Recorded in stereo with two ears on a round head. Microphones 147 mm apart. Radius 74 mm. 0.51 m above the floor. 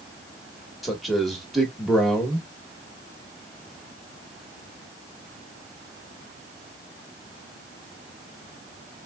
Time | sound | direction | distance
0.8 | a man speaking | centre (ahead or behind) | 1.2 m